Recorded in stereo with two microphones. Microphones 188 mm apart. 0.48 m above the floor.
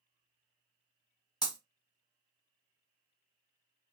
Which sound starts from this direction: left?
Breaking glass, at 1.4 s.